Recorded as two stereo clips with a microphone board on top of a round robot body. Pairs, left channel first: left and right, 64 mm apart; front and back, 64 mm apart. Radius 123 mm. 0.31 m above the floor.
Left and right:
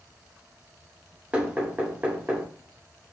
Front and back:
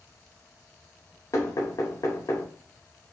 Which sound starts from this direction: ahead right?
Knocking, at 1.3 s.